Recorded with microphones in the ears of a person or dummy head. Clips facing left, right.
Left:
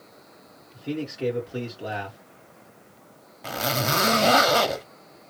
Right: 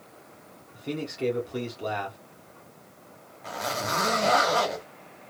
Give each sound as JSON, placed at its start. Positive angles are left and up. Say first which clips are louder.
{"t": 0.7, "sound": "a man speaking", "louder": "left 2 dB", "side_deg": 5, "distance_m": 1.7}
{"t": 3.4, "sound": "a zipper", "louder": "left 4 dB", "side_deg": 45, "distance_m": 0.7}